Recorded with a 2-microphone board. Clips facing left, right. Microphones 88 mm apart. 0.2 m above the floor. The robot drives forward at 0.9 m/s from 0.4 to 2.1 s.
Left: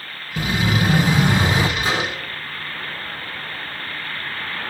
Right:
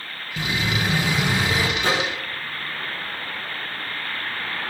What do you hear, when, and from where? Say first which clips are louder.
0.4 s an explosion: left 4 dB; 15° left (ahead or behind), 2.5 m; by 1.7 s 25° left (ahead or behind), 1.7 m
1.8 s a microwave: even; 65° right (ahead or behind), 5.5 m